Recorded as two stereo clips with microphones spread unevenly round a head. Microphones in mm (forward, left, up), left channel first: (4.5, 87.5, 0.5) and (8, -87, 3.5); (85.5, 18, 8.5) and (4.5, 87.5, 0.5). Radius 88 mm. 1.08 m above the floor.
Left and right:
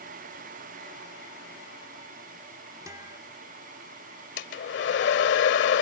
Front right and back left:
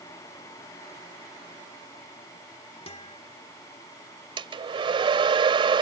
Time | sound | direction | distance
2.9 | a guitar | 20° right | ?
4.4 | a hair dryer | 105° left | ?